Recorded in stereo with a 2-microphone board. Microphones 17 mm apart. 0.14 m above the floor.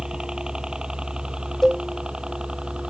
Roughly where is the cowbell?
Left.